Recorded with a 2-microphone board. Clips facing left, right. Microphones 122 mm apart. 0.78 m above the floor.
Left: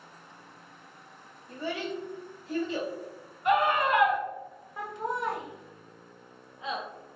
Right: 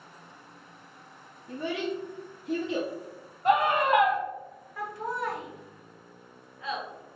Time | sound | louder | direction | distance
1.5 | a child speaking | right 3 dB | 75° right (ahead or behind) | 0.6 m
3.5 | a scream | right 1 dB | 40° right (ahead or behind) | 1.5 m
4.8 | laughter | even | 20° left (ahead or behind) | 0.8 m